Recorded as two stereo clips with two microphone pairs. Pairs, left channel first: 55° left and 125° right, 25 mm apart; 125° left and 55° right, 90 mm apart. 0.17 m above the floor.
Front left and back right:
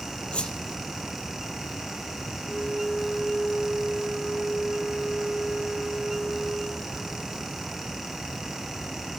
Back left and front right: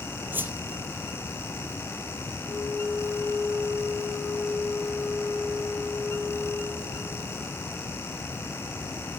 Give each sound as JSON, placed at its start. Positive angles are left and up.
{"t": 0.3, "sound": "a whoosh", "azimuth_deg": 10, "distance_m": 0.9}
{"t": 2.4, "sound": "a flute", "azimuth_deg": 115, "distance_m": 3.5}